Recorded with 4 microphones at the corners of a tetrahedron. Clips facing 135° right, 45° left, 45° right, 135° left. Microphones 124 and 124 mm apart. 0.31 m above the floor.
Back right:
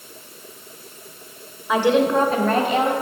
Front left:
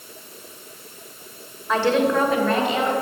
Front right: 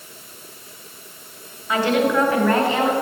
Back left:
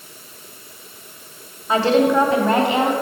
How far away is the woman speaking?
About 1.2 m.